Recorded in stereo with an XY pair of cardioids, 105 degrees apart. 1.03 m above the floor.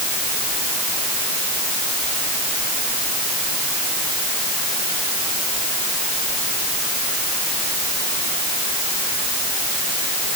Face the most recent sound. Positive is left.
No sound to turn to.